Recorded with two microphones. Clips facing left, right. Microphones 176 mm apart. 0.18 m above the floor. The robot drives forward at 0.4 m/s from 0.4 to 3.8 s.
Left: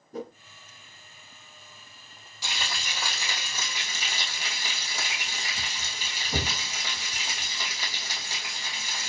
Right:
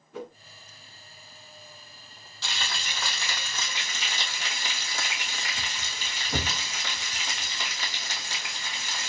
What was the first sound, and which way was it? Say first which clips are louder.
A whoosh: left 2 dB; 40° left (ahead or behind).